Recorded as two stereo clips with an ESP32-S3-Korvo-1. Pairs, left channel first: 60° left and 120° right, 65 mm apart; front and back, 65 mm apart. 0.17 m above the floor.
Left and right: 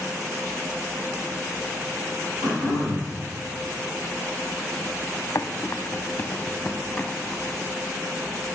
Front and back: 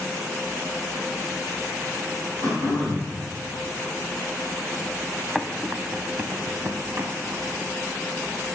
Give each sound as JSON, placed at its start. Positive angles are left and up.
{"t": 2.4, "sound": "throat clearing", "azimuth_deg": -145, "distance_m": 3.5}
{"t": 5.3, "sound": "running footsteps", "azimuth_deg": 90, "distance_m": 0.7}